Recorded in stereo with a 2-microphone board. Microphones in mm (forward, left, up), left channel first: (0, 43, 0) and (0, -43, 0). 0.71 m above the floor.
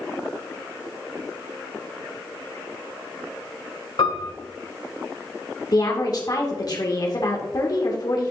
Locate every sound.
4.0 s a piano: 75° left (ahead or behind), 1.7 m
5.7 s a woman speaking: 50° left (ahead or behind), 1.7 m